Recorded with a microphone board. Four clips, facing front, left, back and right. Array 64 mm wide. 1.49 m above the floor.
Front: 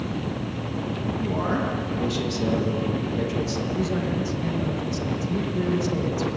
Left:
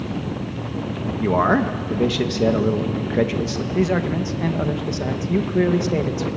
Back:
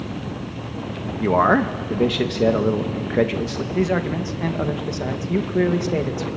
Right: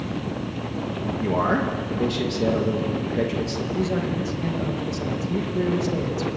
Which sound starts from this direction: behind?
A man speaking, at 1.2 s.